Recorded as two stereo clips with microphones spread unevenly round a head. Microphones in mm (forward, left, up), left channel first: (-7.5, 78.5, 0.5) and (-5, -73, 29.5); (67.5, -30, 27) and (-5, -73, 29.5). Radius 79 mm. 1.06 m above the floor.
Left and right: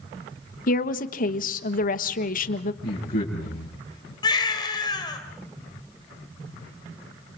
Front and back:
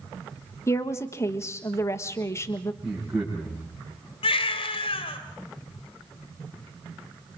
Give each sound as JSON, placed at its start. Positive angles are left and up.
{"t": 0.7, "sound": "a woman speaking", "azimuth_deg": 90, "distance_m": 1.4}
{"t": 2.8, "sound": "a man speaking", "azimuth_deg": 125, "distance_m": 6.0}
{"t": 4.2, "sound": "a baby crying", "azimuth_deg": 25, "distance_m": 3.0}